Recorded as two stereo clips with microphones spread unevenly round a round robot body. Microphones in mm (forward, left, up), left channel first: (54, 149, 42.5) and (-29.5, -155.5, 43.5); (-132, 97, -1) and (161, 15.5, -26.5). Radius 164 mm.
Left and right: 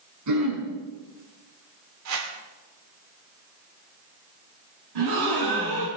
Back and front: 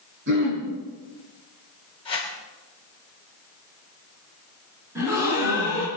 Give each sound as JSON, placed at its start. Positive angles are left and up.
{"t": 0.3, "sound": "throat clearing", "azimuth_deg": -70, "distance_m": 5.5}
{"t": 2.0, "sound": "a whoosh", "azimuth_deg": -120, "distance_m": 2.0}
{"t": 5.0, "sound": "a gasp", "azimuth_deg": -100, "distance_m": 6.0}